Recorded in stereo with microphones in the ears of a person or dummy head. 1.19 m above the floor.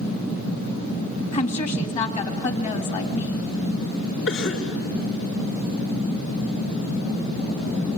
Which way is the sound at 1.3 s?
35° left (ahead or behind).